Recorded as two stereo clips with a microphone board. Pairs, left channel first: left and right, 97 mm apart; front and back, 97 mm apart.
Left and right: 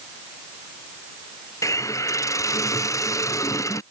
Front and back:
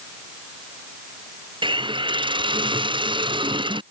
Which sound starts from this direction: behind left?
A hiss, at 1.6 s.